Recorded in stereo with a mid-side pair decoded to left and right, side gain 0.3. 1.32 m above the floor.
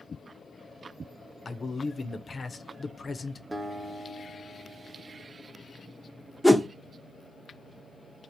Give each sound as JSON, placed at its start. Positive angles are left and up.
{"t": 1.4, "sound": "a man speaking", "azimuth_deg": 45, "distance_m": 0.5}
{"t": 3.5, "sound": "a guitar", "azimuth_deg": -25, "distance_m": 0.9}
{"t": 6.4, "sound": "a whoosh", "azimuth_deg": -5, "distance_m": 0.6}